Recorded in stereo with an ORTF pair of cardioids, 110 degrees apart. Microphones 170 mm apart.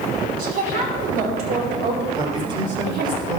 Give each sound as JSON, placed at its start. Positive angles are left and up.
{"t": 0.4, "sound": "a woman speaking", "azimuth_deg": -65, "distance_m": 5.0}
{"t": 2.2, "sound": "a man speaking", "azimuth_deg": -30, "distance_m": 4.0}